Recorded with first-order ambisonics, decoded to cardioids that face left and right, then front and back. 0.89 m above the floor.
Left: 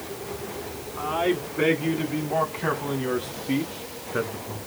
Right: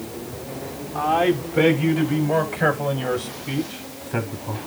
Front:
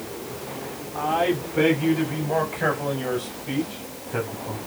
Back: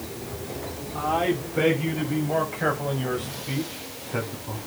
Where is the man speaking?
100° right, 6.5 m; by 4.6 s 90° right, 8 m.